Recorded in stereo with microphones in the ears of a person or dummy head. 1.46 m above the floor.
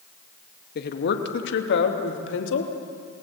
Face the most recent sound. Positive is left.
turn(degrees=75)  # may be behind; listen again after turning